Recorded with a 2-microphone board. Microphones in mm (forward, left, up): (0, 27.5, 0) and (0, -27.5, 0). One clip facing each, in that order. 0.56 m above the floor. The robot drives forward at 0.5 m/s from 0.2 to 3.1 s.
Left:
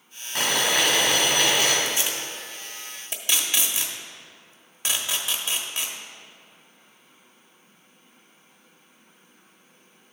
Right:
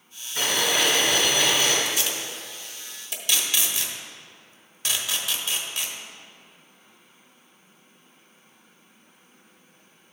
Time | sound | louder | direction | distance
0.3 | boiling | left 1 dB | 80° left | 2.5 m
1.9 | tape being pulled | even | 25° left (ahead or behind) | 1.3 m